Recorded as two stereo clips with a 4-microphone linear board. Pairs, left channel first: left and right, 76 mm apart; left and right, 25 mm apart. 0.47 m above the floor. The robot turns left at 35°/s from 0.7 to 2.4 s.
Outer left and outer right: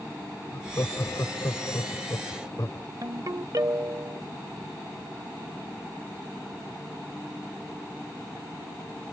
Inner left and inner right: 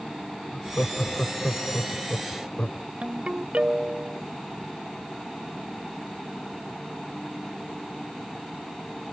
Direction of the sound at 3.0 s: 55° right (ahead or behind).